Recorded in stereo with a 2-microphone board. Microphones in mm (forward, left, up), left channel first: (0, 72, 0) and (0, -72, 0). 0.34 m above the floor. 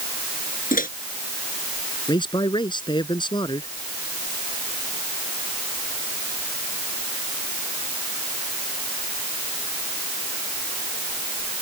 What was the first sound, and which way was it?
A microwave, 80° left.